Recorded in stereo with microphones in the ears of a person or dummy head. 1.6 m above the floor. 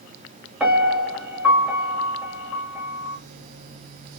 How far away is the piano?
About 1.4 m.